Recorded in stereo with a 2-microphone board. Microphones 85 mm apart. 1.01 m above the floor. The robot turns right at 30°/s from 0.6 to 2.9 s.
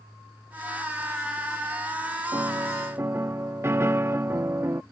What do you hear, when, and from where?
2.3 s a piano: 40° right (ahead or behind); by 4.8 s 30° right (ahead or behind)